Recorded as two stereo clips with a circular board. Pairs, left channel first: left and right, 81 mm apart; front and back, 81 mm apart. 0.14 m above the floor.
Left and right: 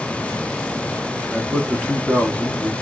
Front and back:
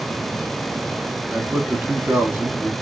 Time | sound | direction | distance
1.3 | a man speaking | 145° left | 1.2 m